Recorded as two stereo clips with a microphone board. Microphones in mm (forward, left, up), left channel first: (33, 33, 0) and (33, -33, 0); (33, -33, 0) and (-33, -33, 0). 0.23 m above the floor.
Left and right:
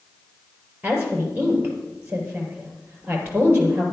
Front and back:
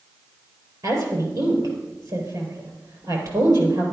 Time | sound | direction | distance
0.8 | a woman speaking | 155° right | 4.5 m